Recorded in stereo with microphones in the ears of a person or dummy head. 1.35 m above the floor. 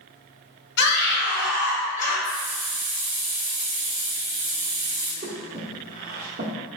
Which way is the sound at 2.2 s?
30° right (ahead or behind).